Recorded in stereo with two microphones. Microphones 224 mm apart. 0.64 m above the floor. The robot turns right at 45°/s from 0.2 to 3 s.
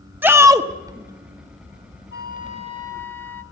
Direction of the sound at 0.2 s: 10° right (ahead or behind).